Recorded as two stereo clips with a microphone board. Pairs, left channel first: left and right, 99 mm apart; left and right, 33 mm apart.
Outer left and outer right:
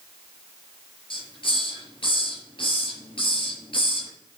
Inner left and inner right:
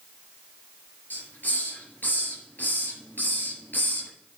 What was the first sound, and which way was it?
A hiss, 65° left (ahead or behind).